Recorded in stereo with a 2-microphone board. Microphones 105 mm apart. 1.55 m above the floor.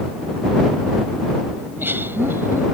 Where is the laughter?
20° right (ahead or behind).